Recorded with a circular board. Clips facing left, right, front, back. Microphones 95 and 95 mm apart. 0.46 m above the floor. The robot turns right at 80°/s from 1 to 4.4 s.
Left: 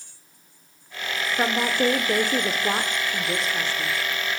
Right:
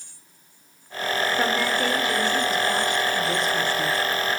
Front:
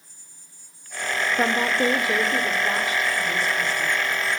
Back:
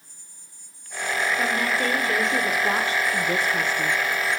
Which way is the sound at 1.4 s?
15° left.